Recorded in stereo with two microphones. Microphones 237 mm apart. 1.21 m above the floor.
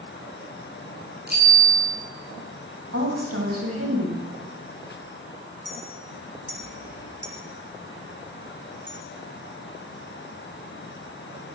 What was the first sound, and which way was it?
A bicycle bell, 40° right (ahead or behind).